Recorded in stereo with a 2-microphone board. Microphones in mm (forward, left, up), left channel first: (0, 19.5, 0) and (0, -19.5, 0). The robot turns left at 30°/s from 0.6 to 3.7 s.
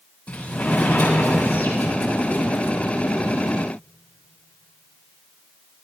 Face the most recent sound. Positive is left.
turn(degrees=55)